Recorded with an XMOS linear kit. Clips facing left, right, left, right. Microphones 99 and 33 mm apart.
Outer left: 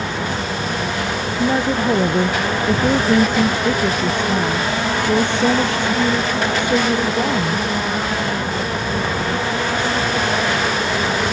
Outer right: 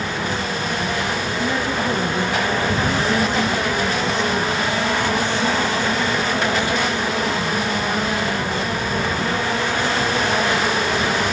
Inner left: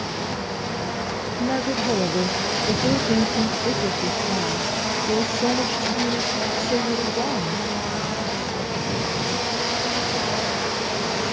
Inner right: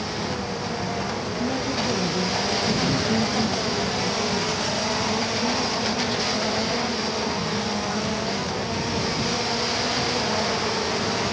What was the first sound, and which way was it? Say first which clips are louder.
A woman speaking: outer left 6 dB, inner left 4 dB; 35° left (ahead or behind).